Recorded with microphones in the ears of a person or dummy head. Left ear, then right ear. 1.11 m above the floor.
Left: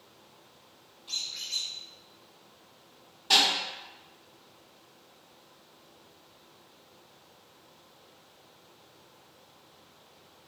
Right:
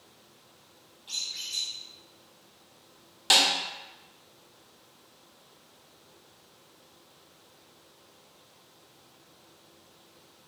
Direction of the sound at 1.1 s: 15° right (ahead or behind).